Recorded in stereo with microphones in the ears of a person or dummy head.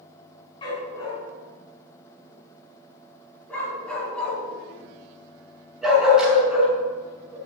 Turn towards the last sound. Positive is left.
turn(degrees=-10)  # may be behind; listen again after turning